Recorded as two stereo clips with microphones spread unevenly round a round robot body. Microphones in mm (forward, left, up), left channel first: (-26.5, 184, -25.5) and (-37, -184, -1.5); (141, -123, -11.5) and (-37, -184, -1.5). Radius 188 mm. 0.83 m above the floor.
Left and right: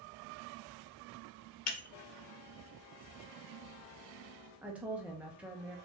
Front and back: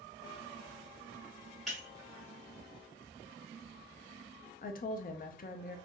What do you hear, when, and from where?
1.7 s breaking glass: 115° left, 0.6 m
4.6 s a woman speaking: 5° right, 0.6 m